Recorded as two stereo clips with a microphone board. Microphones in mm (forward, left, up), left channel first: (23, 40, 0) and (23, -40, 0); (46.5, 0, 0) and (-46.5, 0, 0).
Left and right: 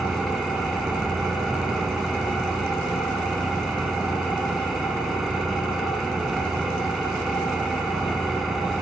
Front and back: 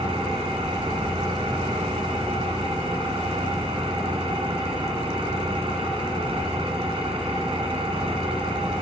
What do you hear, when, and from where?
0.0 s an engine running: 175° right, 2.5 m